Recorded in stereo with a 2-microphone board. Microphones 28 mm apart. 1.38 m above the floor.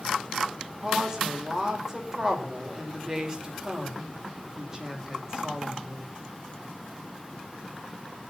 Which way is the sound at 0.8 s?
20° right (ahead or behind).